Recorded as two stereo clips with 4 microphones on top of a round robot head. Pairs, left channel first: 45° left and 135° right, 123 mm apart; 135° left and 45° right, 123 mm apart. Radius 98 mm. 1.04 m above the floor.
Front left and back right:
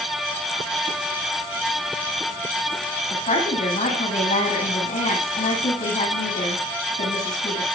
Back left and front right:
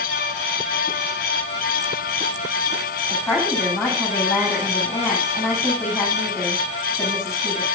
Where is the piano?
No piano in this recording.